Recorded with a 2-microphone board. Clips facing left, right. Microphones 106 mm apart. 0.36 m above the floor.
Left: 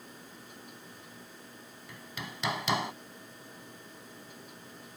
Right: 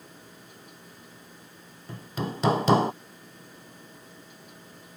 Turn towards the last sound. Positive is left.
turn(degrees=-45)  # may be behind; listen again after turning